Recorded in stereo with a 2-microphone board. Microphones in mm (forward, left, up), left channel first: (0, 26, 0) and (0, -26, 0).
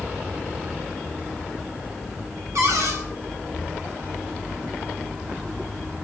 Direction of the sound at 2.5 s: 70° right (ahead or behind).